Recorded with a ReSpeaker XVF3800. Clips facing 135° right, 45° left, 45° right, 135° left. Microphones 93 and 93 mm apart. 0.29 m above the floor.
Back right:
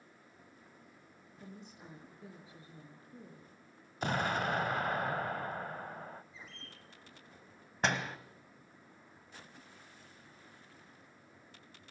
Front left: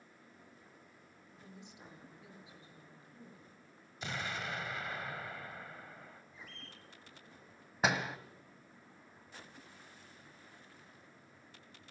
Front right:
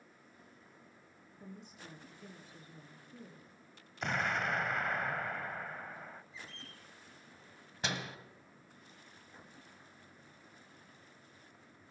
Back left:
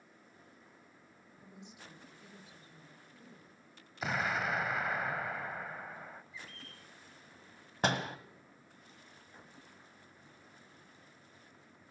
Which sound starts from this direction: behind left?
A door slam, at 7.8 s.